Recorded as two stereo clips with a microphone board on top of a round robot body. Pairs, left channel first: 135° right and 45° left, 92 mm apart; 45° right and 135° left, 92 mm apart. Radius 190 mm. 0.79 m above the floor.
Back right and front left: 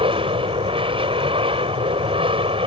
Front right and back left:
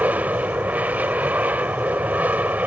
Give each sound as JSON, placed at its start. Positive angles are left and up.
{"t": 0.0, "sound": "an aircraft", "azimuth_deg": 60}